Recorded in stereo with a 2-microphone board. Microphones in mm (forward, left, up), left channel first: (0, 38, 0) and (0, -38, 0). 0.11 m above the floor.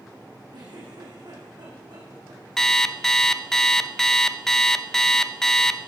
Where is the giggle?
65° right (ahead or behind), 5 m.